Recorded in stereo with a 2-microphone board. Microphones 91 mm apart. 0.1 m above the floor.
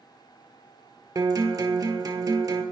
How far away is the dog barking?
I don't hear a dog barking.